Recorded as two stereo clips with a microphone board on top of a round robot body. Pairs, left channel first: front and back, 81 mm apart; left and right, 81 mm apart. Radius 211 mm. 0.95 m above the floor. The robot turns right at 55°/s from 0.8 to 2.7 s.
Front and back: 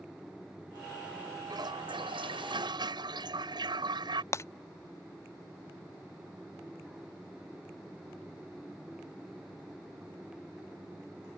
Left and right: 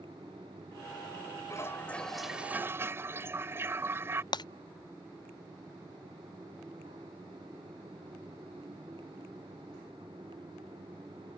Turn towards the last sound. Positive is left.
turn(degrees=55)